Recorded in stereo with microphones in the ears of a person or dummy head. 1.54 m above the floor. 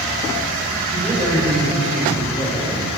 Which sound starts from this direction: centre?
A man speaking, at 0.9 s.